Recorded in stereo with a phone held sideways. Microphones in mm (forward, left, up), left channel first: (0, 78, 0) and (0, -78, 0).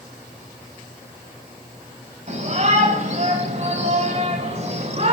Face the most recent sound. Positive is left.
turn(degrees=-45)  # may be behind; listen again after turning